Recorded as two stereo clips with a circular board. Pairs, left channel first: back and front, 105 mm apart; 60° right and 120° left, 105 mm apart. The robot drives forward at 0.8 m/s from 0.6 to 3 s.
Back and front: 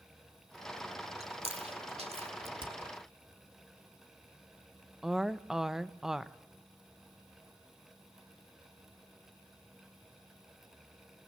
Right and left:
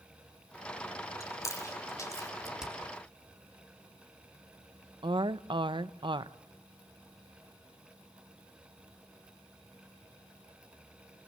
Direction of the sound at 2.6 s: 35° left.